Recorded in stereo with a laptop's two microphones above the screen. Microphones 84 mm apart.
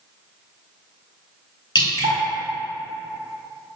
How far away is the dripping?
About 1.8 m.